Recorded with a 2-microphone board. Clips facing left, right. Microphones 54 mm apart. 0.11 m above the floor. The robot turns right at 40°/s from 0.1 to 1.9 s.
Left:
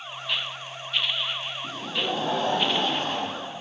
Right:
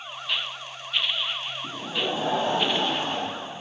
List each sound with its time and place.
1.6 s laughter: 20° right (ahead or behind), 3 m; by 3.6 s 15° right (ahead or behind), 3 m